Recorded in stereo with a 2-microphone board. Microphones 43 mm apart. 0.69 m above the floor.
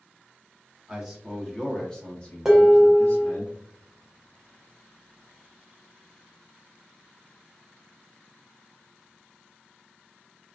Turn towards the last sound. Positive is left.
turn(degrees=-10)  # may be behind; listen again after turning